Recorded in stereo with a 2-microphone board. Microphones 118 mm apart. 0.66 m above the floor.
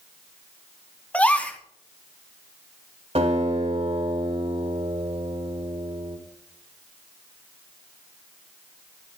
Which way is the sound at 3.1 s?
65° right (ahead or behind).